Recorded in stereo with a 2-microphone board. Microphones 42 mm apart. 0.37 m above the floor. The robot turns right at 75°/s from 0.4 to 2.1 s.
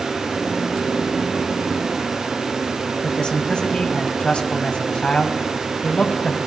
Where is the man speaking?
25° left (ahead or behind), 2 m.